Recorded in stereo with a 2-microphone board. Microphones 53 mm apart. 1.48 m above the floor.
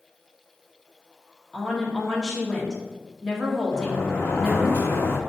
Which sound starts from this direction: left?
A sliding door, at 3.7 s.